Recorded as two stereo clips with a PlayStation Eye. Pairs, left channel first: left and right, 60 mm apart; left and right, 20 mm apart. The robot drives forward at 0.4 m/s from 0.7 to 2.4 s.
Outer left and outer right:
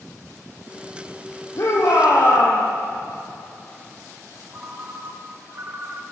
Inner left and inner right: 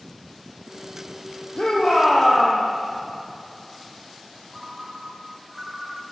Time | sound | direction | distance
1.6 | a shout | 55° left (ahead or behind) | 6.5 m
4.5 | a ringtone | 45° right (ahead or behind) | 2.0 m